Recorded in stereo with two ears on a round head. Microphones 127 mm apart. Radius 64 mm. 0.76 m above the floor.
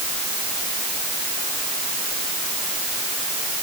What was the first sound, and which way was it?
Only background noise.